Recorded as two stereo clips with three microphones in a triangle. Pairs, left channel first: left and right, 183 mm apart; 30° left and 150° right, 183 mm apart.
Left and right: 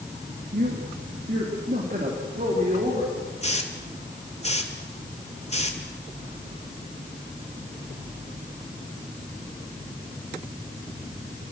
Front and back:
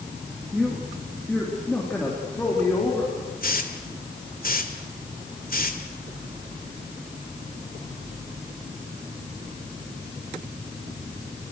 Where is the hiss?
45° left, 2 m.